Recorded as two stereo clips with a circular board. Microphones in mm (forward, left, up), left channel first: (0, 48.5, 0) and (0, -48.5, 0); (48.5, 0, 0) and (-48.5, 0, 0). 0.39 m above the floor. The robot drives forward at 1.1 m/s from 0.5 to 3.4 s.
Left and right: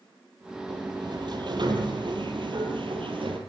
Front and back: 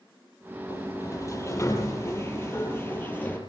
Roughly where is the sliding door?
Ahead right.